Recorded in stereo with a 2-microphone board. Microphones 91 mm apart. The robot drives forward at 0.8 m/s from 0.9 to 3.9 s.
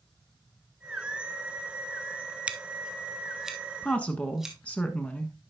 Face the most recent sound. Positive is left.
turn(degrees=15)  # may be behind; listen again after turning